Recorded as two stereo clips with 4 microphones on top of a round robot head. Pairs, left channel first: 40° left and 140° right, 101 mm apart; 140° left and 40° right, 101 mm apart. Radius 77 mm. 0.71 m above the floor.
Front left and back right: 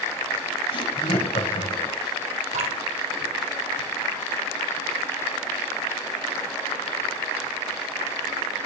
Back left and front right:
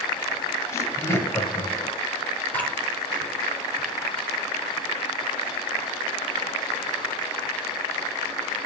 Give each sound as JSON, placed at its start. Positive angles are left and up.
{"t": 0.7, "sound": "laughter", "azimuth_deg": 75, "distance_m": 4.5}
{"t": 2.5, "sound": "dripping", "azimuth_deg": -145, "distance_m": 5.5}